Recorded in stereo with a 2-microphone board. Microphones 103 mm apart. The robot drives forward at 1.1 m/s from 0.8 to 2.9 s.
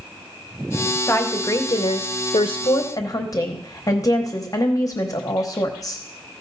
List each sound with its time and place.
1.1 s a woman speaking: 25° left (ahead or behind), 1.4 m; by 6.0 s 35° left (ahead or behind), 0.9 m